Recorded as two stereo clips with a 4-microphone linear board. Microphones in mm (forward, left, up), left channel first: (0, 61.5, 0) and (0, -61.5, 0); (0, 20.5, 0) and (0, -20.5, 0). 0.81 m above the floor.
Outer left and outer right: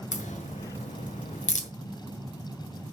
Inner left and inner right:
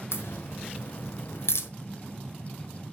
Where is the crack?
80° left, 1.3 m.